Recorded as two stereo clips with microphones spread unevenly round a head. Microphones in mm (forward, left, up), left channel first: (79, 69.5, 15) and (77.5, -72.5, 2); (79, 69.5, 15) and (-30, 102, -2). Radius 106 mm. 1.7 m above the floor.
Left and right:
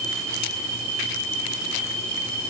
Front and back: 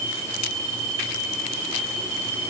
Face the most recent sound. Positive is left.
No sound to turn to.